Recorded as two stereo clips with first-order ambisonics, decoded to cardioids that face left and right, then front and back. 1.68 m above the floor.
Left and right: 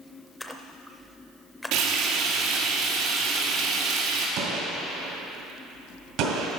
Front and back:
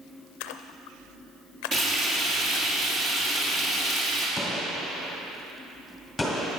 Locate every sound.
0.4 s a splash: 5° left, 0.5 m
1.7 s frying: 115° right, 2.5 m
4.4 s a gunshot: 85° right, 2.5 m